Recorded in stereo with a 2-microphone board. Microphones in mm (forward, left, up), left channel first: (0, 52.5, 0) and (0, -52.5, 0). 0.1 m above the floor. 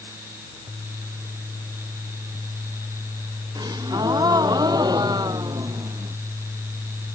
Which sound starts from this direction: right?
A gasp, at 3.5 s.